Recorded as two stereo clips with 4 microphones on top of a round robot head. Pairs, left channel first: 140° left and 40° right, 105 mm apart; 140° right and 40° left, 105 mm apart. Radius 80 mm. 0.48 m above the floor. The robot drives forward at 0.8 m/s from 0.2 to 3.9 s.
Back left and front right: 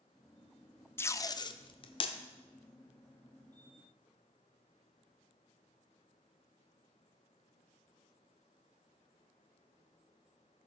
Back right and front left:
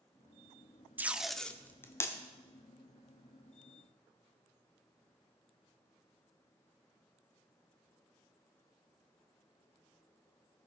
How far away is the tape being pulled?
About 0.7 m.